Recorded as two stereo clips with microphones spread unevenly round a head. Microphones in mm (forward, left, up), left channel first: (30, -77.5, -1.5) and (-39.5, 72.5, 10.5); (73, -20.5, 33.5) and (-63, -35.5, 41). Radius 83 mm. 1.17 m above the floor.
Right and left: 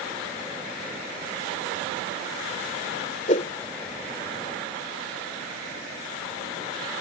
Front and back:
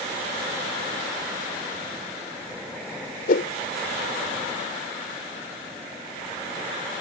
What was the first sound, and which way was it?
A whoosh, 15° right.